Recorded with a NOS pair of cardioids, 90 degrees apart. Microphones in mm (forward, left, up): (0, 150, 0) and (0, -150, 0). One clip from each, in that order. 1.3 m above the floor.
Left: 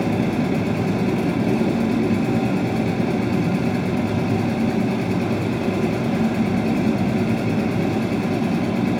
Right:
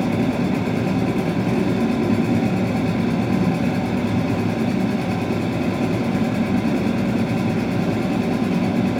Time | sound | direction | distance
0.0 | a machine running | straight ahead | 5.5 m